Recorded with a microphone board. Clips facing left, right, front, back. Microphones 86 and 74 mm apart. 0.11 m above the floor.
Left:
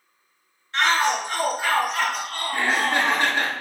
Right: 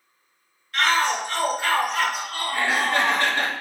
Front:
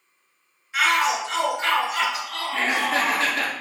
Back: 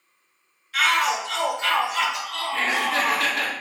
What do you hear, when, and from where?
0.7 s a shout: 55° left, 1.5 m; by 3.3 s 25° right, 2 m
2.5 s laughter: 30° left, 1.4 m